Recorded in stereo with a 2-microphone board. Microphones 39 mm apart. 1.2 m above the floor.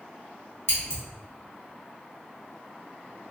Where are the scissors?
75° left (ahead or behind), 1.6 m.